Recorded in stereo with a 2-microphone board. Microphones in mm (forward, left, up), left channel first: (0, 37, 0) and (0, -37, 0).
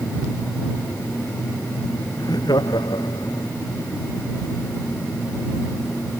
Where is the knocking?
No knocking in this recording.